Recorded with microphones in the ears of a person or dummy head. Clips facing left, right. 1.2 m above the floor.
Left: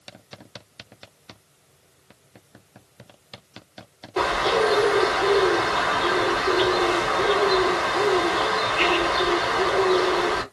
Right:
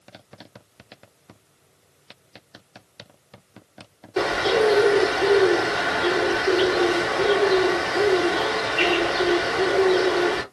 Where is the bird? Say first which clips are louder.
Right 2 dB; 5° right (ahead or behind), 2 m.